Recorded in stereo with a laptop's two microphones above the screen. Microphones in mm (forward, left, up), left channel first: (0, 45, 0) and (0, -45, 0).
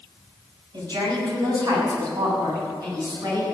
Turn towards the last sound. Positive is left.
turn(degrees=-45)  # may be behind; listen again after turning